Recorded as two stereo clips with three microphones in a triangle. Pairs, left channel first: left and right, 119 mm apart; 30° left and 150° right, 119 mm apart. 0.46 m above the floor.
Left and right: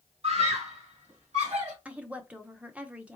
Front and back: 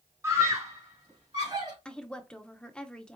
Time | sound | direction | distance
0.2 | a scream | 85° right | 1.7 m
1.9 | a woman speaking | 40° right | 0.7 m